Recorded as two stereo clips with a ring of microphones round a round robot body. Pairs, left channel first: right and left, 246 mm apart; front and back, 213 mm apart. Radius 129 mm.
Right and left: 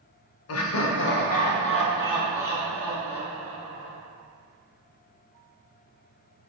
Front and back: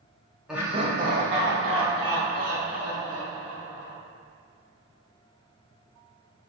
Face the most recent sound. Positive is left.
turn(degrees=-175)